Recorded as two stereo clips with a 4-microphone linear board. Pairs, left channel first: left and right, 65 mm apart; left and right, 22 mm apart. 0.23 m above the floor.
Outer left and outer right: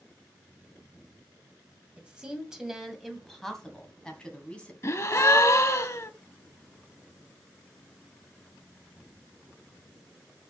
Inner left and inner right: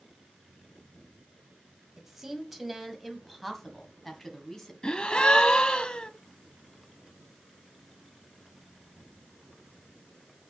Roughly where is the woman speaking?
Centre.